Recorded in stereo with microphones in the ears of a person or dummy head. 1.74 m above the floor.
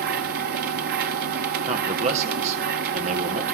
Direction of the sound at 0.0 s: 45° right (ahead or behind).